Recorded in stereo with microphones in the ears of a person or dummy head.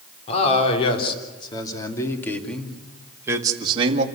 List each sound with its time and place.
0.3 s a man speaking: 40° left (ahead or behind), 3.5 m; by 4.0 s 40° right (ahead or behind), 2.0 m